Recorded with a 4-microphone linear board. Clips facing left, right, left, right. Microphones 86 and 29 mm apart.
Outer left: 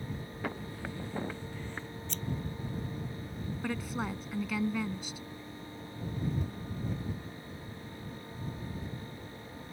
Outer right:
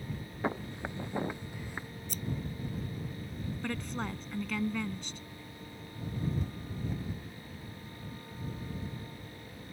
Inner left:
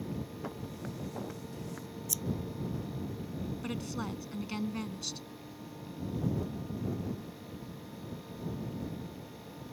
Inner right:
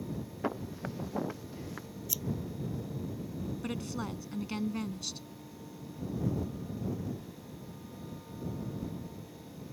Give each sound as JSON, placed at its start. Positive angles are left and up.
{"t": 0.4, "sound": "footsteps", "side_deg": -25}
{"t": 2.1, "sound": "scissors", "side_deg": -10}
{"t": 3.6, "sound": "a woman speaking", "side_deg": 5}